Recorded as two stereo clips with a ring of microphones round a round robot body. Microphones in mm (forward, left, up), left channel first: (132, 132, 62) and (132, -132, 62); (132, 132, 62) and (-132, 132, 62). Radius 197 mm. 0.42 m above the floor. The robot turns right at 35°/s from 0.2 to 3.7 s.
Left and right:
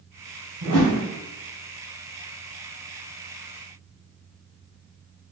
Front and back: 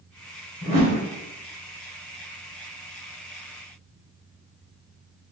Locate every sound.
0.6 s a whoosh: 125° right, 1.4 m; by 1.0 s 115° right, 1.4 m